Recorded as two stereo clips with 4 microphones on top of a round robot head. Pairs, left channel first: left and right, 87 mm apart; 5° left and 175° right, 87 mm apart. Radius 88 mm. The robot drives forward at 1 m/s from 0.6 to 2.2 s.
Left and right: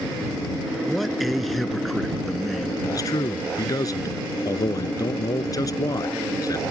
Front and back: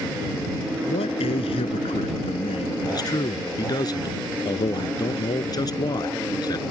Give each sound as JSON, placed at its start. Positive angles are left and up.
{"t": 0.8, "sound": "a man speaking", "azimuth_deg": 0}
{"t": 2.8, "sound": "a man speaking", "azimuth_deg": 45}